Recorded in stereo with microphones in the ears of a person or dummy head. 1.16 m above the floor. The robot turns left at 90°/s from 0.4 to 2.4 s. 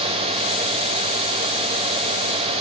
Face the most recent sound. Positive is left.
No sound to turn to.